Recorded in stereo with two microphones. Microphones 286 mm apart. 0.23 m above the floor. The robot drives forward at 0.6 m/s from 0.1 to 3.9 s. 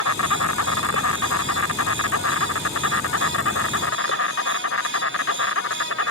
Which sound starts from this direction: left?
An insect, at 0.0 s.